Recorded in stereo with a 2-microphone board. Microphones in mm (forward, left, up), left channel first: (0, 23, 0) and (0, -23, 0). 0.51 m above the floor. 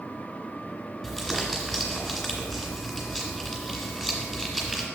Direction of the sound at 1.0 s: 5° left (ahead or behind).